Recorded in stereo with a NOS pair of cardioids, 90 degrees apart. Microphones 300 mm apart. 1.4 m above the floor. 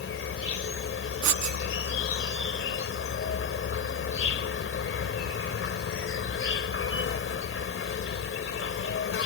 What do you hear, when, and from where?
0.0 s an insect: 45° left
1.2 s writing: 65° right